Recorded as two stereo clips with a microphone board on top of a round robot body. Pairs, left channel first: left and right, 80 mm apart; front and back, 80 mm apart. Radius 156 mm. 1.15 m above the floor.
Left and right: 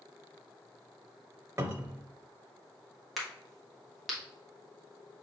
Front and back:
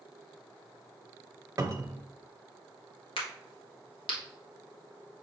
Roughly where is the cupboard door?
Behind right.